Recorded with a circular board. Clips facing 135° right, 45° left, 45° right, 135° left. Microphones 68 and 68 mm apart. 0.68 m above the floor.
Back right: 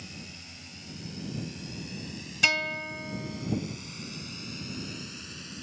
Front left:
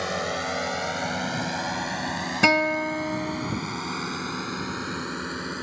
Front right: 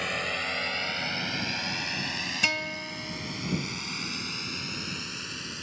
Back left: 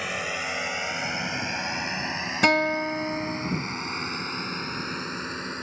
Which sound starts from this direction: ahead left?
A drone, at 0.0 s.